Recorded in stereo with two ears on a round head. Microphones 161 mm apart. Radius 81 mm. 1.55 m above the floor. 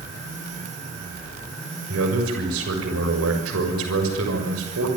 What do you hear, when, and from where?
1.9 s a man speaking: 85° right, 6.5 m